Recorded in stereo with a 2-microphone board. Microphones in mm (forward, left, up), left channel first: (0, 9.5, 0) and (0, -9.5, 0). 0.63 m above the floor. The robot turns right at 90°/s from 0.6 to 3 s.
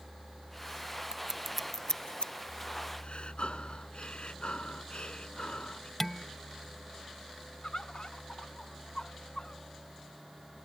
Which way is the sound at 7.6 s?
50° left (ahead or behind).